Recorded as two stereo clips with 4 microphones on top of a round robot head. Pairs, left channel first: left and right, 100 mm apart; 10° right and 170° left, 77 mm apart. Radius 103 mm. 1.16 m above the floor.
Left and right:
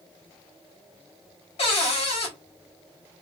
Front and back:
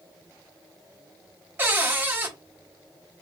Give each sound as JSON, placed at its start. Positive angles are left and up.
{"t": 1.6, "sound": "a cupboard door", "azimuth_deg": 110, "distance_m": 1.8}